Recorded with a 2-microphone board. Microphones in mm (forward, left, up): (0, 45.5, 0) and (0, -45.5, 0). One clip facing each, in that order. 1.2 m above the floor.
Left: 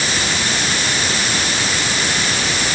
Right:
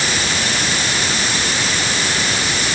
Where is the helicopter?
No helicopter in this recording.